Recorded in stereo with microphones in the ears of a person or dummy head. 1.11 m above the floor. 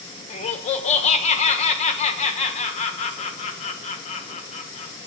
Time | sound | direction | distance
0.3 | laughter | 40° left (ahead or behind) | 1.0 m